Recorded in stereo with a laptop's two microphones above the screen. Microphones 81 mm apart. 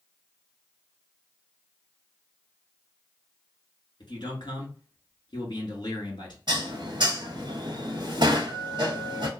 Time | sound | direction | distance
4.0 | a man speaking | 65° left (ahead or behind) | 1.7 m
6.5 | dishes clattering | 60° right (ahead or behind) | 0.9 m